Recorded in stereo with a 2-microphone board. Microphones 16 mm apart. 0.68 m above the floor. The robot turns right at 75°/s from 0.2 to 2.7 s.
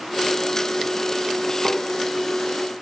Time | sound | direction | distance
1.6 | tapping | 60° right (ahead or behind) | 2.5 m